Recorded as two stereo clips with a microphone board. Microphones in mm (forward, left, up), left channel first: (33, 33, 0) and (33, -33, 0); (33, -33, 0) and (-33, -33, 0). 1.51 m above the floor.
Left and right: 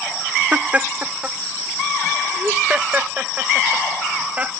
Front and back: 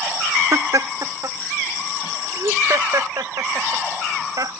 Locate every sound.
0.5 s laughter: 155° right